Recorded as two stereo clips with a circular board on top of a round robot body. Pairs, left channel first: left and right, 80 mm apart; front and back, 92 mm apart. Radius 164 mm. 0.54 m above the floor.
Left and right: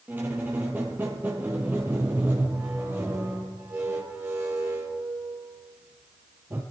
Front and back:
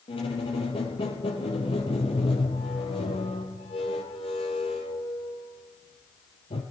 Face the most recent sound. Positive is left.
turn(degrees=-25)